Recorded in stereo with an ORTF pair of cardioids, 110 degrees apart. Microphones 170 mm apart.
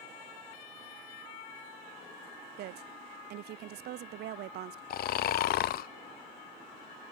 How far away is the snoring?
About 0.6 m.